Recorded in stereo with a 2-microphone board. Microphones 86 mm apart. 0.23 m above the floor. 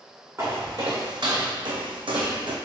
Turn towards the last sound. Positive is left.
turn(degrees=-65)  # may be behind; listen again after turning